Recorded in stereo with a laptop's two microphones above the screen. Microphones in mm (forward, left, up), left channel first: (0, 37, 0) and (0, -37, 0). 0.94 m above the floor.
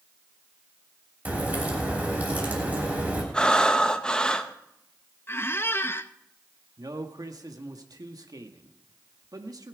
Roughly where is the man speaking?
Right.